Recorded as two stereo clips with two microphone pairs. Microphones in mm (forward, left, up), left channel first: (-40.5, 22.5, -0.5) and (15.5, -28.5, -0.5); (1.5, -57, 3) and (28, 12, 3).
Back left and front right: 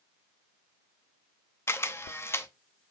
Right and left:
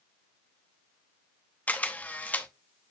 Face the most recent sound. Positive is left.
turn(degrees=-175)